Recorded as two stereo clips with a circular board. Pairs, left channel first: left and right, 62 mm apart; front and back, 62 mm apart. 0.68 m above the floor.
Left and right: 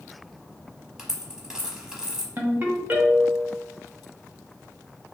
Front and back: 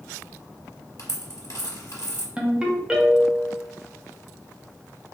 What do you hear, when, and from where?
1.0 s a dropped coin: 15° right, 0.8 m
2.4 s a ringtone: 120° right, 0.6 m